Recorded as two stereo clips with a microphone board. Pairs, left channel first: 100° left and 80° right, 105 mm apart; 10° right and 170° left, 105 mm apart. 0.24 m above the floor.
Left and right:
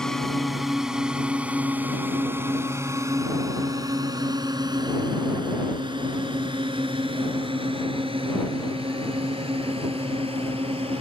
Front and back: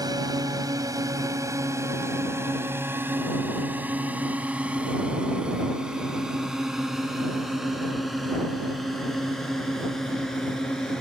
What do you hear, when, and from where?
0.0 s a drone: 175° right; by 11.0 s 95° right